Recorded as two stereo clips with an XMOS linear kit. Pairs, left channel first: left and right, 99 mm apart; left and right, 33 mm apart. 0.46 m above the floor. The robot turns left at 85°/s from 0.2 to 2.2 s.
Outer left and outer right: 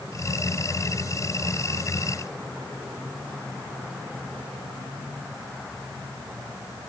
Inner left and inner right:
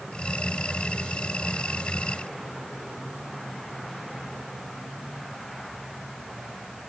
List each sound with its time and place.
Only background noise.